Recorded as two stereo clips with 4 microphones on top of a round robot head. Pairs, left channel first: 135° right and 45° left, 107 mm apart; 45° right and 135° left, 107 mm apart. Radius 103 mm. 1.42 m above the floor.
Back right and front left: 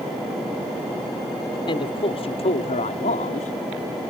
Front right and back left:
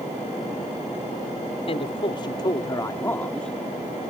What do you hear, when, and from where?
1.7 s a man speaking: 85° right; by 3.6 s 135° right